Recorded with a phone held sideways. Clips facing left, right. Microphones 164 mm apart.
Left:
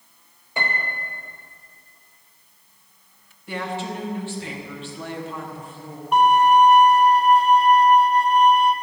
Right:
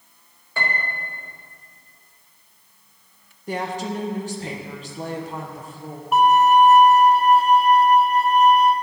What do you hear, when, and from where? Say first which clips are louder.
0.6 s a piano: even; 20° left (ahead or behind), 0.9 m
3.5 s a woman speaking: right 2 dB; 45° right (ahead or behind), 1.1 m
6.1 s a violin: even; 5° right (ahead or behind), 0.6 m